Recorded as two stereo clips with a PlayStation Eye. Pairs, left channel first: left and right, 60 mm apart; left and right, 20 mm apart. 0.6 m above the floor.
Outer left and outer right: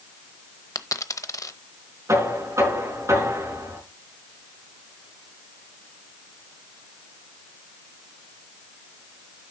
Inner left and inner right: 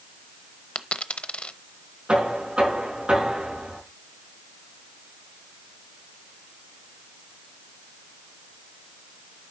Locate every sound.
0.8 s a dropped coin: 70° left (ahead or behind), 0.8 m
2.1 s knocking: 60° right (ahead or behind), 5 m